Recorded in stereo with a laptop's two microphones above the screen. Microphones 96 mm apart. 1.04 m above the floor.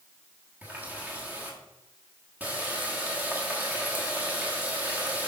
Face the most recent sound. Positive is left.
turn(degrees=-15)  # may be behind; listen again after turning